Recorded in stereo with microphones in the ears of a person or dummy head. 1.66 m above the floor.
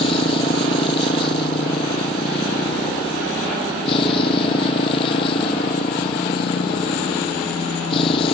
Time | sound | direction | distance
0.0 | a motorcycle | 30° left (ahead or behind) | ?